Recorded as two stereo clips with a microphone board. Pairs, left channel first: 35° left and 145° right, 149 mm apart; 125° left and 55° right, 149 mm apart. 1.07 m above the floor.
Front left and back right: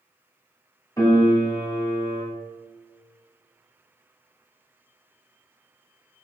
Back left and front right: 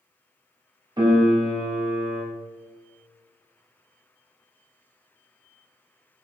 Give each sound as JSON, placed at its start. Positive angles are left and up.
{"t": 1.0, "sound": "a piano", "azimuth_deg": -20, "distance_m": 0.7}